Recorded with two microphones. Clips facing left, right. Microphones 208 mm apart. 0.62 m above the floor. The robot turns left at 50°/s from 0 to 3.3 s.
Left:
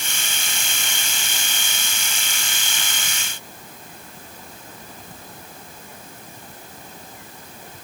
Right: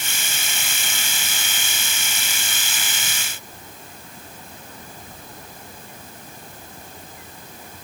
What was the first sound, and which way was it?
Only background noise.